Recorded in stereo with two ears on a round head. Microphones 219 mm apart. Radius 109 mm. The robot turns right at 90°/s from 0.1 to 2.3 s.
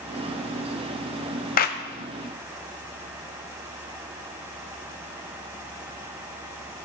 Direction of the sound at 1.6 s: 35° left (ahead or behind).